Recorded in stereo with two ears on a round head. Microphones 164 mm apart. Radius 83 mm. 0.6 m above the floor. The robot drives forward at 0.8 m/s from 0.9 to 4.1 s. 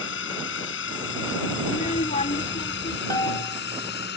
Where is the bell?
20° left (ahead or behind).